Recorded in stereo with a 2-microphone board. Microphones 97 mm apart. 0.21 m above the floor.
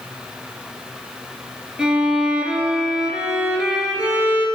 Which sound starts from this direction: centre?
A violin, at 1.8 s.